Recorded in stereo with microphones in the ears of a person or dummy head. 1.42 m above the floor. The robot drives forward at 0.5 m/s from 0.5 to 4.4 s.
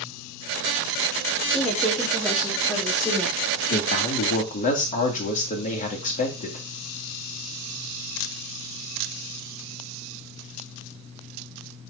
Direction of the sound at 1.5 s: Centre (ahead or behind).